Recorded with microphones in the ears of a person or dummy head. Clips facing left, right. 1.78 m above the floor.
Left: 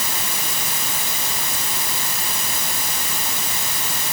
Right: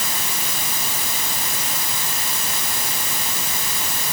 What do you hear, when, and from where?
Only background noise.